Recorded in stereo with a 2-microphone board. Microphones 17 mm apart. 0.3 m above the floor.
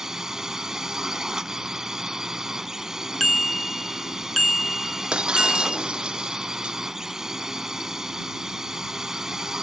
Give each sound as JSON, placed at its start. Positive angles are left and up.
{"t": 0.0, "sound": "a drone", "side_deg": -30}
{"t": 3.2, "sound": "a bicycle bell", "side_deg": 10}
{"t": 5.1, "sound": "breaking glass", "side_deg": -85}